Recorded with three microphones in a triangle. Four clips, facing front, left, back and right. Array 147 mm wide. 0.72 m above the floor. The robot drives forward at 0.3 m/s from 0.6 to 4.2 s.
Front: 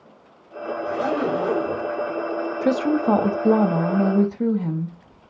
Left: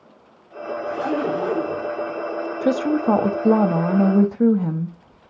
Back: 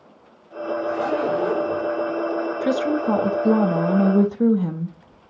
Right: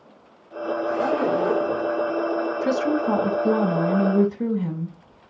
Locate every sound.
0.8 s a zipper: 20° right, 2.5 m
2.6 s a woman speaking: 50° left, 0.7 m; by 5.0 s 110° left, 0.6 m